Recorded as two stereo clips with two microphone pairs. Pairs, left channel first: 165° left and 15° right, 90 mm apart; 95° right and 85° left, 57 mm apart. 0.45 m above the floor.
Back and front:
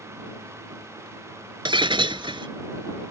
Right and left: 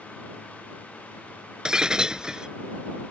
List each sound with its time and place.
1.6 s breaking glass: 5° left